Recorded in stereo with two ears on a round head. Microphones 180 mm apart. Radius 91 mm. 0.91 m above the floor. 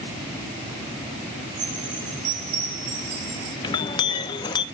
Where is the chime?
85° right, 6 m.